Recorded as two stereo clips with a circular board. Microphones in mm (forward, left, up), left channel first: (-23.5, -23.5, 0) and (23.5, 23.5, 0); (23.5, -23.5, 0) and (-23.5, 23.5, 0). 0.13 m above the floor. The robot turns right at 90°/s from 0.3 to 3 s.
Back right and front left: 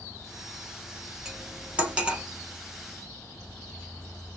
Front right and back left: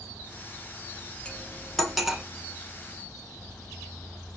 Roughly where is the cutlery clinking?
Ahead.